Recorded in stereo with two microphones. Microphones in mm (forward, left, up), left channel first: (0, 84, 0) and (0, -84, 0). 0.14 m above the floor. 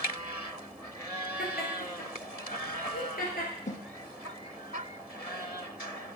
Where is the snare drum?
50° left (ahead or behind), 0.9 m.